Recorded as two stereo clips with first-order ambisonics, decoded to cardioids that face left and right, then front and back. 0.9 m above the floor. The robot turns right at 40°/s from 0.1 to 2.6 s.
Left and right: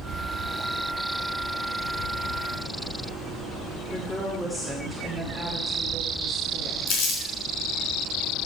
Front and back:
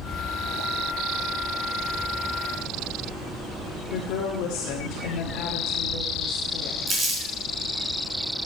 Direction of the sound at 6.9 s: 110° left.